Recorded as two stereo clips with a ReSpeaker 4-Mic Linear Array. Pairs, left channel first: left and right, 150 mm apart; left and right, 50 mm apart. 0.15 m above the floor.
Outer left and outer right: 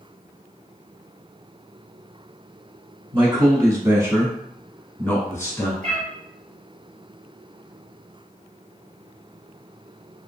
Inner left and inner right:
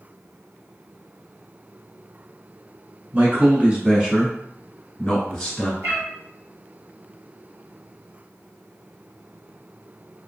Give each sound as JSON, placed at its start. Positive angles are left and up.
{"t": 3.1, "sound": "a man speaking", "side_deg": -30, "distance_m": 1.4}
{"t": 5.8, "sound": "a cat meowing", "side_deg": -55, "distance_m": 1.4}